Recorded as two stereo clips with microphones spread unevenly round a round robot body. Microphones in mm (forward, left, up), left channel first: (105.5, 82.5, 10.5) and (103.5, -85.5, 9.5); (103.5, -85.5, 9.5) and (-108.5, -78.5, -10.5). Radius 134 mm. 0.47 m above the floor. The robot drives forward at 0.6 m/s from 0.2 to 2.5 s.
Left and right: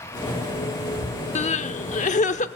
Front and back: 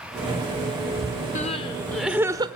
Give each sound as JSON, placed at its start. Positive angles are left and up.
{"t": 1.4, "sound": "crying", "azimuth_deg": 55, "distance_m": 0.9}